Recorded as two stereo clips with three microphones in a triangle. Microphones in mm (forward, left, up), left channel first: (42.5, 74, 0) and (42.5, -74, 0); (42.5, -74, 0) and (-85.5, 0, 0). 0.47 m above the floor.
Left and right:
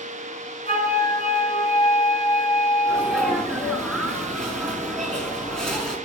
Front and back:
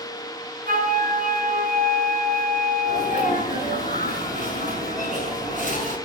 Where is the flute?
135° left, 4 m.